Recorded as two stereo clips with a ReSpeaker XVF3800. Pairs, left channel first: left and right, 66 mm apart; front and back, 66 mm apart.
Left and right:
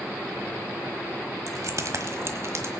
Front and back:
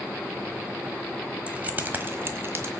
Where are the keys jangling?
110° right, 1.1 m; by 2.7 s 130° right, 1.9 m.